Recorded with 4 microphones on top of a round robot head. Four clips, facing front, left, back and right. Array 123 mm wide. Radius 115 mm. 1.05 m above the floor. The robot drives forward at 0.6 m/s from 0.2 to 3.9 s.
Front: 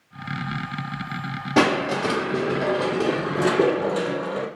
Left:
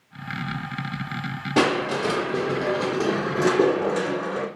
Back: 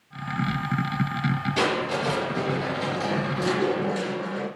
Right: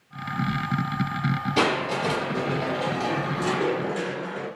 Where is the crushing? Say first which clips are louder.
Left 4 dB, front 8 dB; 40° left, 3 m; by 4.5 s 60° left, 2.5 m.